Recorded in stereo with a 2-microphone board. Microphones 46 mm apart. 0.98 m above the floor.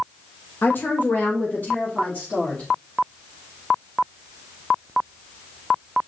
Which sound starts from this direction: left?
A woman speaking, at 0.6 s.